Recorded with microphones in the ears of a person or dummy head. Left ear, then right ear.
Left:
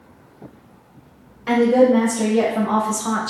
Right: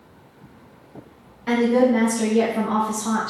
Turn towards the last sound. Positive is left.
turn(degrees=15)  # may be behind; listen again after turning